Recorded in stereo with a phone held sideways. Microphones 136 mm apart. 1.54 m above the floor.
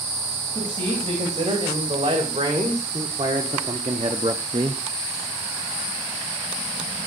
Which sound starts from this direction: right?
A man speaking, at 0.5 s.